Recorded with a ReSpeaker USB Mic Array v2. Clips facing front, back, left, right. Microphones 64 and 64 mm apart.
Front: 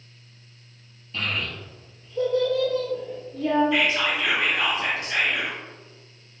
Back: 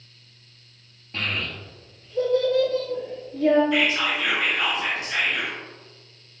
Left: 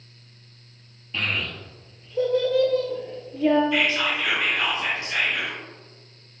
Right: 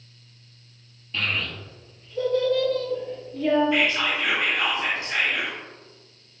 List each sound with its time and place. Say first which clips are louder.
1.1 s a child speaking: even, even; 170° left, 1.2 m
3.7 s whispering: even, even; 100° right, 1.7 m